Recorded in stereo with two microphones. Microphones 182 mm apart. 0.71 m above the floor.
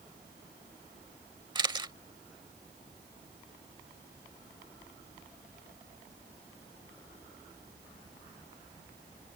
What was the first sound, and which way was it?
A camera shutter, 25° right (ahead or behind).